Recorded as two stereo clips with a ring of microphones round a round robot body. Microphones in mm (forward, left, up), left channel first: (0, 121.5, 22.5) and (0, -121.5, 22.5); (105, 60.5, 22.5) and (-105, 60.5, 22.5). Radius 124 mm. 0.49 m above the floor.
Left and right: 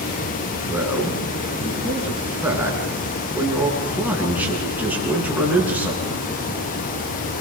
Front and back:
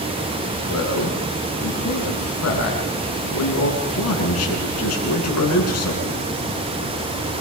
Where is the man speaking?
5° right, 7.5 m.